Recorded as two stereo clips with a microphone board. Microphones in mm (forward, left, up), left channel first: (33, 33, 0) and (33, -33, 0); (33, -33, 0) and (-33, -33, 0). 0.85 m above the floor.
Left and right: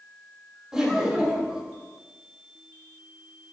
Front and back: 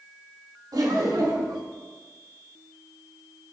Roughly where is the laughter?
Behind.